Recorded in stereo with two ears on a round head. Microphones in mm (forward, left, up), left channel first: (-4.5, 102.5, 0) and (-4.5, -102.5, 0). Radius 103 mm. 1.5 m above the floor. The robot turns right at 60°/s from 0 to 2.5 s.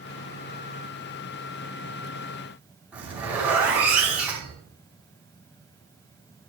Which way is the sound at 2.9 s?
5° right (ahead or behind).